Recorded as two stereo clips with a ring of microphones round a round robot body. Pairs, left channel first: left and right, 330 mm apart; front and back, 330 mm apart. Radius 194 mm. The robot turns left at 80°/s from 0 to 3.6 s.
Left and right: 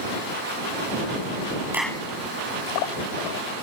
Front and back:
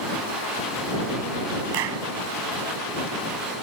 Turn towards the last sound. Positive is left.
turn(degrees=40)